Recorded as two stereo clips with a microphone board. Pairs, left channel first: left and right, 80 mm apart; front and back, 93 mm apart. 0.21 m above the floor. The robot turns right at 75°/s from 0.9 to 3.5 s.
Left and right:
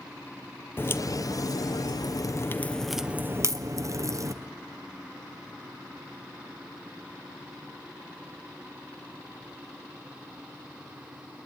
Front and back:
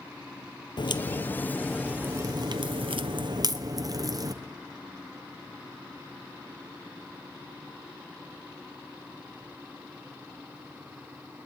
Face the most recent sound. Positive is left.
turn(degrees=-135)